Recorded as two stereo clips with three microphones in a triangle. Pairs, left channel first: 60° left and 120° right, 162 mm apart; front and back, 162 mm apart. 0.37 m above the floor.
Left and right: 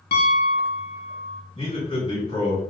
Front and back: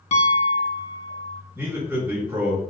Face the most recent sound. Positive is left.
turn(degrees=110)